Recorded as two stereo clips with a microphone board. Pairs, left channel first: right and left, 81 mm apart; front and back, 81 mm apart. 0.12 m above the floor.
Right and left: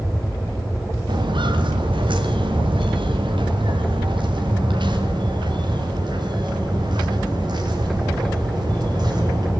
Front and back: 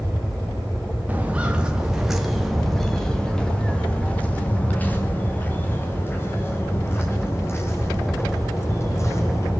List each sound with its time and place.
1.1 s footsteps: 110° left, 3.5 m; by 9.5 s 55° left, 10 m